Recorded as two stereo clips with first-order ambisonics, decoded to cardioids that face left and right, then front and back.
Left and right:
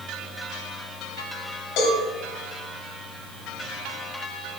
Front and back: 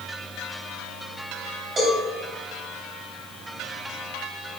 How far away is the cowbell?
About 3 m.